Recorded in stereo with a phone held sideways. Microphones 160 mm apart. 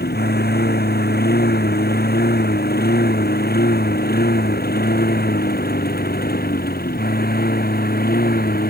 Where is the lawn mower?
75° left (ahead or behind); by 8.7 s 65° left (ahead or behind).